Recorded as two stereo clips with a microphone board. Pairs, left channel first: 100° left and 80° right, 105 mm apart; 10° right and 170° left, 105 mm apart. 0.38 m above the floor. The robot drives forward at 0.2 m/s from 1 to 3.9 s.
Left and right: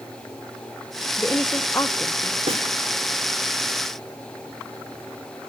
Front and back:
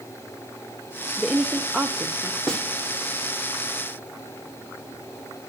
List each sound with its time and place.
1.2 s a woman speaking: 90° left, 0.9 m; by 2.4 s 125° left, 0.9 m
2.5 s a snare drum: 90° right, 3.5 m; by 2.7 s 95° right, 3.5 m